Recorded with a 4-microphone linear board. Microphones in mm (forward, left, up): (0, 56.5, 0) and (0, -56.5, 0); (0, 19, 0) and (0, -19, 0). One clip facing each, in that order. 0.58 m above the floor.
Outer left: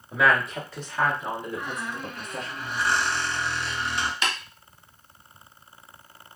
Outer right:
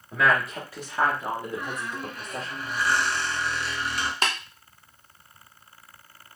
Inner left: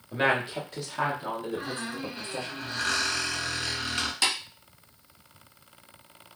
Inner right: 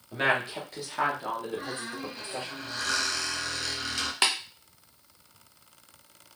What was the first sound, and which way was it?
A woman speaking, 10° left (ahead or behind).